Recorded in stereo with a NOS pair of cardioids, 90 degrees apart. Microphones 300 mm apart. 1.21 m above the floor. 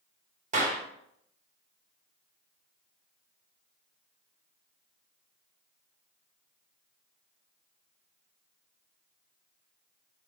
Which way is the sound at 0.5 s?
25° right.